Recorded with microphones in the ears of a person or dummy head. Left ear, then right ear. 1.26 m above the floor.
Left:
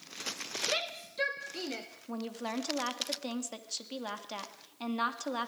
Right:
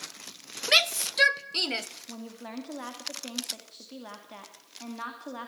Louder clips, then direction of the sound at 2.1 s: Left 4 dB; 85° left.